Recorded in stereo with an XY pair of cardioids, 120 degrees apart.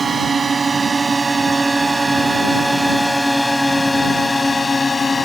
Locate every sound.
0.0 s a drone: 25° right; by 5.3 s 30° left